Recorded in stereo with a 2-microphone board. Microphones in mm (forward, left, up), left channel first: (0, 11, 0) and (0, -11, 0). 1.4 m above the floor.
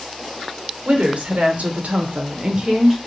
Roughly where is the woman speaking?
Right.